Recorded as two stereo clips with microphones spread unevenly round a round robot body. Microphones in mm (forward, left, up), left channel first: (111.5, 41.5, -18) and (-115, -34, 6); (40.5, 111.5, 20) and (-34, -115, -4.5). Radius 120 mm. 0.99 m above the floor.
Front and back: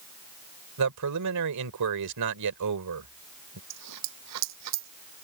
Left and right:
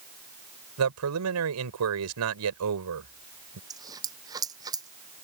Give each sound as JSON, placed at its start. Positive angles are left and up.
{"t": 0.8, "sound": "a man speaking", "azimuth_deg": -135}
{"t": 3.7, "sound": "a dropped coin", "azimuth_deg": 175}